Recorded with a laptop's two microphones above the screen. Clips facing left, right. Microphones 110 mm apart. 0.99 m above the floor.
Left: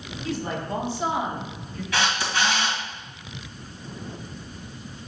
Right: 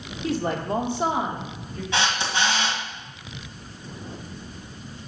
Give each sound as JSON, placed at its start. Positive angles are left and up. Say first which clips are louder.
{"t": 0.2, "sound": "a woman speaking", "louder": "right 4 dB", "side_deg": -65, "distance_m": 1.8}
{"t": 1.9, "sound": "a camera shutter", "louder": "even", "side_deg": -25, "distance_m": 1.8}